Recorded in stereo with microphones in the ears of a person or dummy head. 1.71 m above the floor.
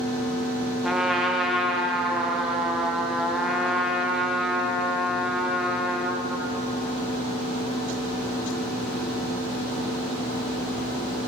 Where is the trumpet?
5° right (ahead or behind), 0.8 m.